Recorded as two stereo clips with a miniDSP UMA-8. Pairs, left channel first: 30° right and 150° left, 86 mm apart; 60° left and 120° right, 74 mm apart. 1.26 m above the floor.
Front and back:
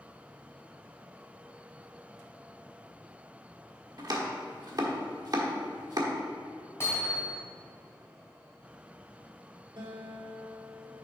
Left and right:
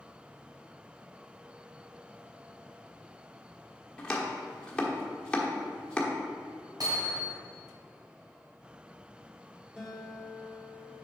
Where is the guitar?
160° left, 1.9 m.